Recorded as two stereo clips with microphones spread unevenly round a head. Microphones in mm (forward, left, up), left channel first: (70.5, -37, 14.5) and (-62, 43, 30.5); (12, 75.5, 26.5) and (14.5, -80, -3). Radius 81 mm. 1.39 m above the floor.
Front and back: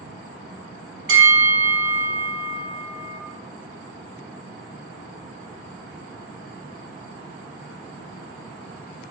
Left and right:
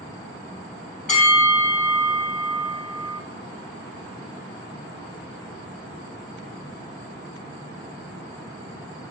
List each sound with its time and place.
1.1 s a bell: 135° left, 3 m